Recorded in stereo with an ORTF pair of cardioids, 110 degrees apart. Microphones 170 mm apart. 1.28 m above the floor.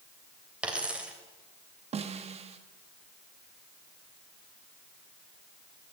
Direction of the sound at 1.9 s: 40° right.